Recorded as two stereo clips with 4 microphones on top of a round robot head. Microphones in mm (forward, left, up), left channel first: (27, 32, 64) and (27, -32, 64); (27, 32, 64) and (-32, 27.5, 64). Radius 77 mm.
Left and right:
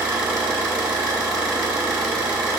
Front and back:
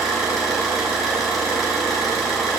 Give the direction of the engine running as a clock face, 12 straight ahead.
3 o'clock.